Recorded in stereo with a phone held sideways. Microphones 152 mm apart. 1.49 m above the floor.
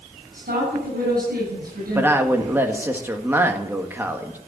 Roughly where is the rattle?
No rattle in this recording.